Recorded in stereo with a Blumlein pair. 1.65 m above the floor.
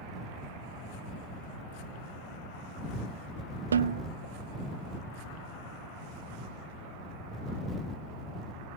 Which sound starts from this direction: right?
A snare drum, at 3.7 s.